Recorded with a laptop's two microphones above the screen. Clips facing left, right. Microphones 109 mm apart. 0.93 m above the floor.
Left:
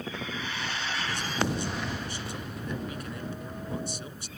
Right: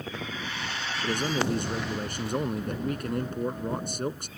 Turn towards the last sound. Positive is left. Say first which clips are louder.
# right 5 dB
turn(degrees=-50)  # may be behind; listen again after turning